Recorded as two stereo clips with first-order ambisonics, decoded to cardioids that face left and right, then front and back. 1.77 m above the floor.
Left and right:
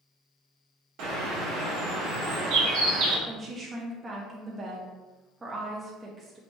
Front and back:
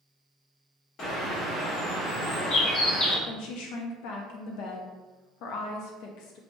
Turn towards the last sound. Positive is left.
turn(degrees=-15)